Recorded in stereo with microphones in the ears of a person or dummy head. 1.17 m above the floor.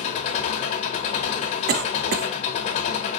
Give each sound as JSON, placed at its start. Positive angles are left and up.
{"t": 0.0, "sound": "an engine running", "side_deg": 45, "distance_m": 1.2}
{"t": 1.7, "sound": "a cough", "side_deg": -55, "distance_m": 0.8}